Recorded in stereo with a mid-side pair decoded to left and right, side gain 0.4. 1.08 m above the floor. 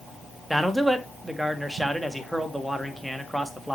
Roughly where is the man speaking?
Ahead.